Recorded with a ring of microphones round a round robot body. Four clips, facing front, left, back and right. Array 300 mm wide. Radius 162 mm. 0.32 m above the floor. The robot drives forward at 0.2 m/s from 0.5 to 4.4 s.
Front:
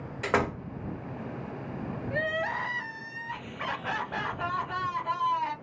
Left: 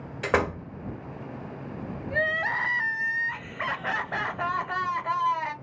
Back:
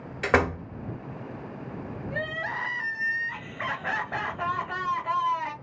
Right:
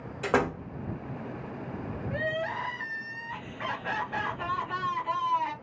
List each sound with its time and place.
0.2 s a door slam: 155° left, 0.9 m
2.1 s crying: 85° left, 1.1 m; by 5.5 s 110° left, 1.2 m